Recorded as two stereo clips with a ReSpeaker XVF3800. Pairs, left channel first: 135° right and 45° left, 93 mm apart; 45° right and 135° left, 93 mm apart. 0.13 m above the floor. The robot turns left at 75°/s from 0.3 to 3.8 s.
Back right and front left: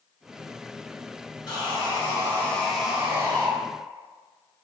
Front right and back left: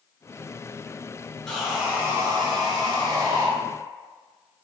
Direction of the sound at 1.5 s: 130° right.